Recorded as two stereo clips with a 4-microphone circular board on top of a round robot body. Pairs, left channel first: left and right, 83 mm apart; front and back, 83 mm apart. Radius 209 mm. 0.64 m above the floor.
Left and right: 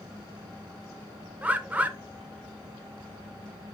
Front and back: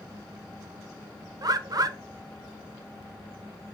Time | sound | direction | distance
1.4 | a bird | 155° right | 0.6 m